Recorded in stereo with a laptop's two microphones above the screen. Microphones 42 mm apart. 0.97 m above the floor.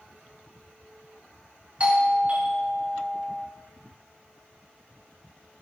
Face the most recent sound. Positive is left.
turn(degrees=-30)  # may be behind; listen again after turning